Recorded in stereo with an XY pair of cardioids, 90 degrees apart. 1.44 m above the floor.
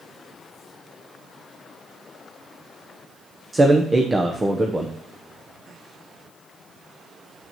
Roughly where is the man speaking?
Ahead right.